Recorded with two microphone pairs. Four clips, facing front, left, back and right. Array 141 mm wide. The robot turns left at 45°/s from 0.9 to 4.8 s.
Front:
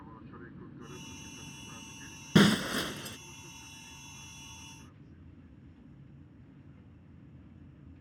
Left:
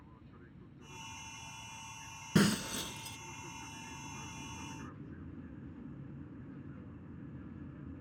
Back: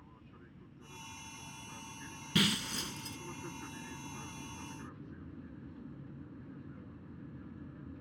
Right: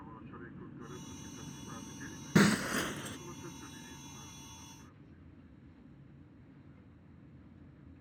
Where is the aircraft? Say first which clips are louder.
Right 8 dB, front 8 dB; 40° right; by 8.0 s 145° left.